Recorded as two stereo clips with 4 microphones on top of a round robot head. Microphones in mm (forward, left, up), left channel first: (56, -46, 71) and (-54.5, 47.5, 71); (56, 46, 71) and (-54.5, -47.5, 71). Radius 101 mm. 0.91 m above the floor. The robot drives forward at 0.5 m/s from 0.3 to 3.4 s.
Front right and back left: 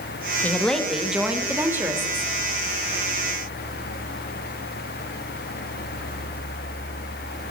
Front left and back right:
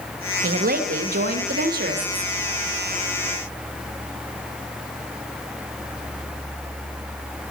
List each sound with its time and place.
0.4 s a woman speaking: 120° right, 1.0 m; by 2.3 s 150° right, 1.6 m